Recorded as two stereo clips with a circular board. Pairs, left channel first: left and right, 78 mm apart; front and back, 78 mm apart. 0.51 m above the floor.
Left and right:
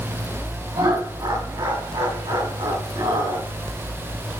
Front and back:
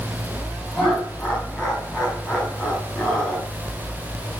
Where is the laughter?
80° right, 3.5 m.